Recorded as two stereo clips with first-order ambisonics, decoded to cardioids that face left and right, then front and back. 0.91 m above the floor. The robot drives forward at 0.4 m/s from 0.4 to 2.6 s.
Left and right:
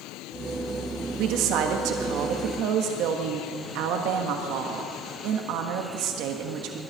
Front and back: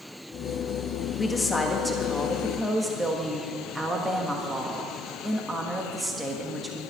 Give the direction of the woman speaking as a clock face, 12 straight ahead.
2 o'clock.